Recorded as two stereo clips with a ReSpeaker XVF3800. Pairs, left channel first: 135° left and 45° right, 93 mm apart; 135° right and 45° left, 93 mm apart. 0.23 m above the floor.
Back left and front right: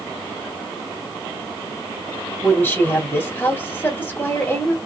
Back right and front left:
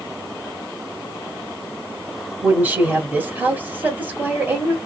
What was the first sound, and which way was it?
A woman speaking, 95° left.